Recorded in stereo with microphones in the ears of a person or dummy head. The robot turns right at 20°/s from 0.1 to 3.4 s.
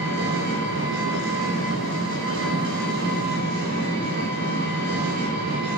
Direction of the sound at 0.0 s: 125° right.